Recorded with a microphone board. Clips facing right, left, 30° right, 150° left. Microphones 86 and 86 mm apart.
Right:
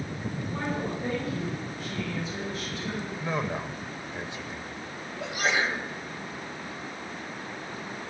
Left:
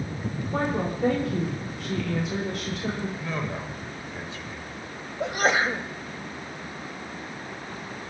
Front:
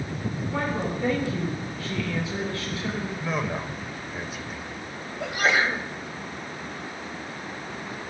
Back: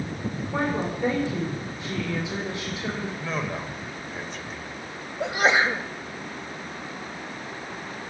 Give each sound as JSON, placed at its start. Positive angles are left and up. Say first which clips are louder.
{"t": 0.5, "sound": "a woman speaking", "louder": "left 5 dB, back 2 dB", "azimuth_deg": 80, "distance_m": 6.0}
{"t": 3.2, "sound": "a man speaking", "louder": "right 1 dB, front 3 dB", "azimuth_deg": -105, "distance_m": 1.3}
{"t": 5.2, "sound": "a sneeze", "louder": "left 4 dB, back 2 dB", "azimuth_deg": 95, "distance_m": 1.2}